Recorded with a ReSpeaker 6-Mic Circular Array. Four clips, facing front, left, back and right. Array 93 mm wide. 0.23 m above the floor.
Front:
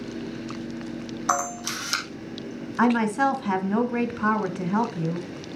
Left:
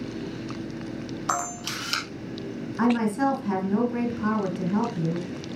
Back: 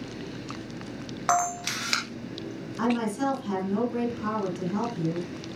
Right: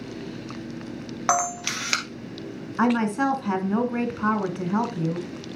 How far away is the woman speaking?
About 1.9 m.